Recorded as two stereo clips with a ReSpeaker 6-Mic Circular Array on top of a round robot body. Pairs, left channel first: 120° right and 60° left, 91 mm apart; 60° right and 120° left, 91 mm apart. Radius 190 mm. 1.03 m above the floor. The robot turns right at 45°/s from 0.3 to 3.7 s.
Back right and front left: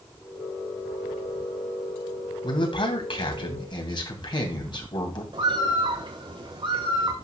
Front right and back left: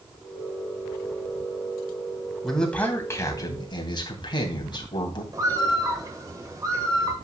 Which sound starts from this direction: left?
A bird, at 5.3 s.